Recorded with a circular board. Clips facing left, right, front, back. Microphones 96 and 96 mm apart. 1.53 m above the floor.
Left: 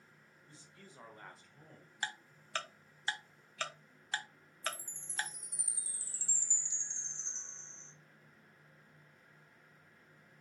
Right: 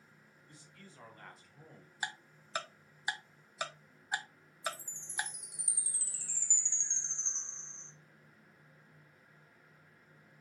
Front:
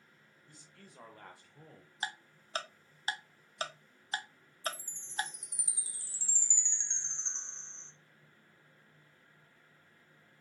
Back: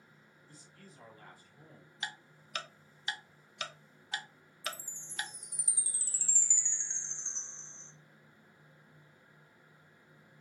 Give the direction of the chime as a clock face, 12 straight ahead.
2 o'clock.